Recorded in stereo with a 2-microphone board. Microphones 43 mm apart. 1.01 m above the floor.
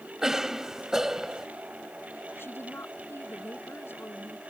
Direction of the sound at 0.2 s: 10° right (ahead or behind).